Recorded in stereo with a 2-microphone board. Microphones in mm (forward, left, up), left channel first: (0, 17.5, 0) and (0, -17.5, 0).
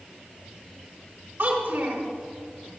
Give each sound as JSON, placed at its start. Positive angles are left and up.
{"t": 1.4, "sound": "a child speaking", "side_deg": -80, "distance_m": 3.5}